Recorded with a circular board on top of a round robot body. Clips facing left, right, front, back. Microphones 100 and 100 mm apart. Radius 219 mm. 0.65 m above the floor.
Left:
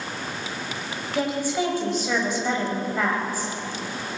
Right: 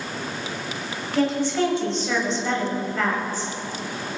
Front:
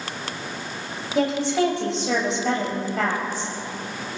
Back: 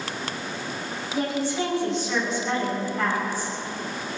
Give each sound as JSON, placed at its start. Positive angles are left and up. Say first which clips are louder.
{"t": 1.1, "sound": "a woman speaking", "louder": "right 3 dB, front 5 dB", "azimuth_deg": 10, "distance_m": 5.5}